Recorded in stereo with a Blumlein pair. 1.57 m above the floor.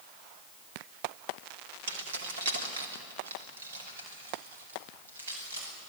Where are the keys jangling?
60° right, 2.5 m; by 5.7 s 70° right, 8 m.